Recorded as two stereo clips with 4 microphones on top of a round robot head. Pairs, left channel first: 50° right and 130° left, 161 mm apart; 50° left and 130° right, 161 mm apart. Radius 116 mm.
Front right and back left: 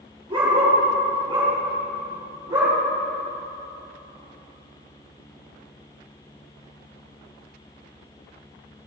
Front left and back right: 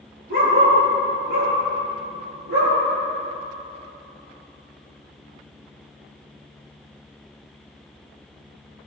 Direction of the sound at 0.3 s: 165° right.